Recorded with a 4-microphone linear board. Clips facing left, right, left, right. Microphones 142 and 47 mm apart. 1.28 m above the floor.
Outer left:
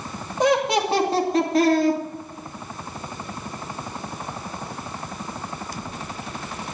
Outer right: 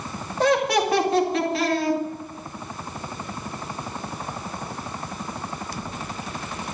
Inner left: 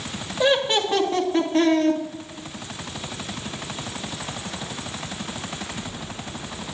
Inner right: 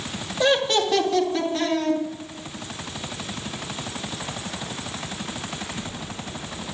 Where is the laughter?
15° left (ahead or behind), 2.5 m; by 2.0 s 55° left (ahead or behind), 2.5 m.